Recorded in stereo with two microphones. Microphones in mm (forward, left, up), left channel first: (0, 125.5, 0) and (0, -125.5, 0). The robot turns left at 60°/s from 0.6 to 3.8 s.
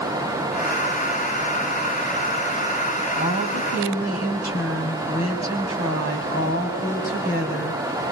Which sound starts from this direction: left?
A woman speaking, at 3.1 s.